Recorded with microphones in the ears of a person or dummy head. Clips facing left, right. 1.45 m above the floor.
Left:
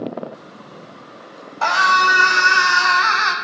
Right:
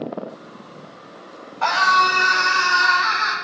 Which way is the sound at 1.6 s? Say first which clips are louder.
Left 1 dB; 50° left (ahead or behind).